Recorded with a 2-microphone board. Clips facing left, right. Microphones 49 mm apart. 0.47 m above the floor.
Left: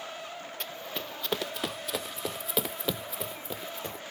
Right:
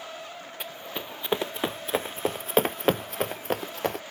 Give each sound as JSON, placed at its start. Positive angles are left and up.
{"t": 0.6, "sound": "running footsteps", "side_deg": -15}